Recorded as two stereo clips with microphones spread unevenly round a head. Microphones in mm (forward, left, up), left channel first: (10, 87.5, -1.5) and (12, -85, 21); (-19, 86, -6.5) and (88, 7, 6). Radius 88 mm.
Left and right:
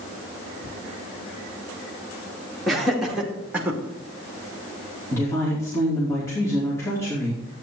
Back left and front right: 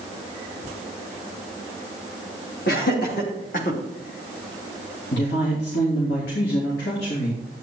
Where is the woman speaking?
170° left, 3 m.